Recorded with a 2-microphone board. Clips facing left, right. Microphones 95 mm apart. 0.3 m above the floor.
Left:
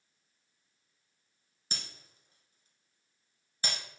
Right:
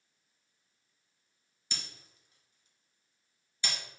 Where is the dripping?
No dripping in this recording.